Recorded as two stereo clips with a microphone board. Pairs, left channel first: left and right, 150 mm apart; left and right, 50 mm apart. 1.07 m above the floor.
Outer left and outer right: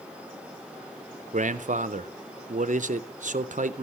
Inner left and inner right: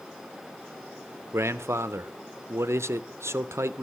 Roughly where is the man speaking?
Right.